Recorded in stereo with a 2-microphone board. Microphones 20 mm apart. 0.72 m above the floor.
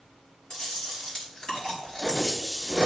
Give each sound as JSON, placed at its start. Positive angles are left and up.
{"t": 0.5, "sound": "chewing", "side_deg": 45, "distance_m": 4.0}